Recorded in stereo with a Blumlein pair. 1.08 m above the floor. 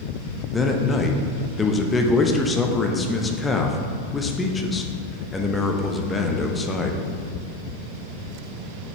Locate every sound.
0.5 s a man speaking: 10° left, 0.9 m